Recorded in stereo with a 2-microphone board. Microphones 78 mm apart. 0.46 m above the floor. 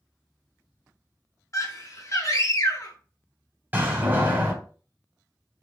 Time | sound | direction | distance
1.5 | a scream | 45° left (ahead or behind) | 1.2 m
3.7 | a door slam | 25° right (ahead or behind) | 1.3 m